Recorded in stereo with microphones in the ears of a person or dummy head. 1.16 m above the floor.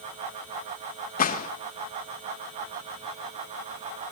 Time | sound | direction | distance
1.2 | a gunshot | 40° left (ahead or behind) | 1.0 m